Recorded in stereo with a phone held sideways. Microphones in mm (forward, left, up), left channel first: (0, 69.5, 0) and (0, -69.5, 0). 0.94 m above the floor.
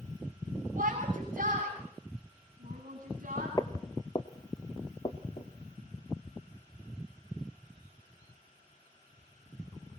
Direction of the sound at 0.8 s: 70° right (ahead or behind).